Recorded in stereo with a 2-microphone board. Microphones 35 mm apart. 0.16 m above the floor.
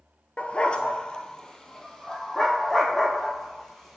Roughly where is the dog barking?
Left.